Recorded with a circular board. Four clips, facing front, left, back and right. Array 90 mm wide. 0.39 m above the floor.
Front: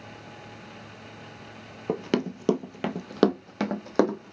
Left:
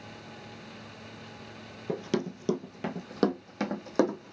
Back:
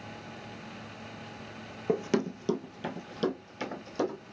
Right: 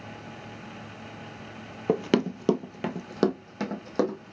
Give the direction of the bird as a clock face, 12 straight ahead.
I don't hear a bird.